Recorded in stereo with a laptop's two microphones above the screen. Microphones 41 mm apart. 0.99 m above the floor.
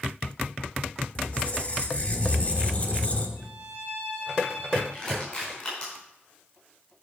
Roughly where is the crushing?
Left.